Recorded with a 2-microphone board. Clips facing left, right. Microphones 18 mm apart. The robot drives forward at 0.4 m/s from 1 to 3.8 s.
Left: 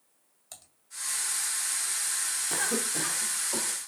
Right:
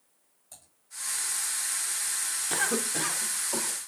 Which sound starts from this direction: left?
Typing on a keyboard, at 0.5 s.